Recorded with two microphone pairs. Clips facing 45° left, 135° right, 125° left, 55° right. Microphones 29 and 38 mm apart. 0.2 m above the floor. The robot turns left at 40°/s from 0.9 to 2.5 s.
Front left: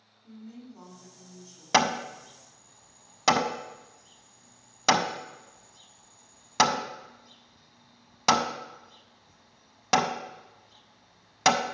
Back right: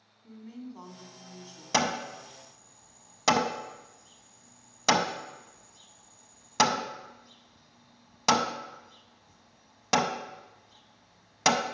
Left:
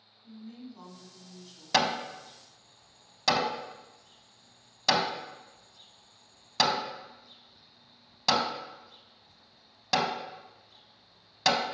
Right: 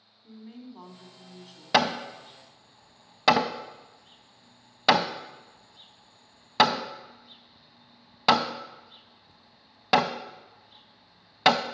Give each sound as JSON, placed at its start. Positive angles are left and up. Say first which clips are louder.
{"t": 0.2, "sound": "a woman speaking", "louder": "back right 2 dB, right 1 dB", "azimuth_deg": -95, "distance_m": 1.4}
{"t": 1.7, "sound": "hammering", "louder": "front left 4 dB, right 3 dB", "azimuth_deg": 0, "distance_m": 0.5}